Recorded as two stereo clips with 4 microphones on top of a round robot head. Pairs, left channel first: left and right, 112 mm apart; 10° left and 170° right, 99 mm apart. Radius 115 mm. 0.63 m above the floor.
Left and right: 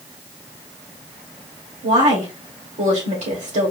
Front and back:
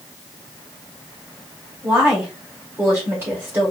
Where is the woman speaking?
100° right, 2.5 m.